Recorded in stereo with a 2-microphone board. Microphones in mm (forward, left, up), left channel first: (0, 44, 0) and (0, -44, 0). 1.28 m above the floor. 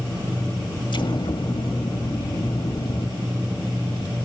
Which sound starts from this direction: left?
An explosion, at 0.9 s.